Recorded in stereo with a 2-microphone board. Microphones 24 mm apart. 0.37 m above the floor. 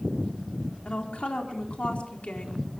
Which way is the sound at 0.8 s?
60° left (ahead or behind).